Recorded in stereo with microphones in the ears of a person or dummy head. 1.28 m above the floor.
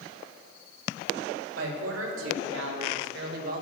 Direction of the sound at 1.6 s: 85° right.